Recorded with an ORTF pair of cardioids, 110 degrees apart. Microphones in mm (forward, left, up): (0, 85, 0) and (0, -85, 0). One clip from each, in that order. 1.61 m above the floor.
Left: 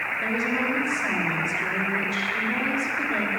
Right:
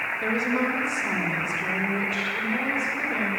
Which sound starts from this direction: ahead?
A woman speaking, at 0.2 s.